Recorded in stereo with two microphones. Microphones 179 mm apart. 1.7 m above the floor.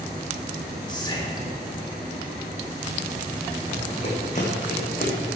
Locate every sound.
0.9 s whispering: 25° left (ahead or behind), 3.5 m
3.7 s running footsteps: 40° left (ahead or behind), 6 m; by 5.3 s 55° left (ahead or behind), 5 m